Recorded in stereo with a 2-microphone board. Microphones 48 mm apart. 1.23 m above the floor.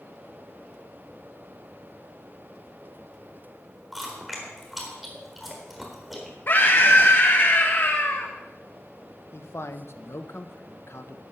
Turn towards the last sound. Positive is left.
turn(degrees=60)  # may be behind; listen again after turning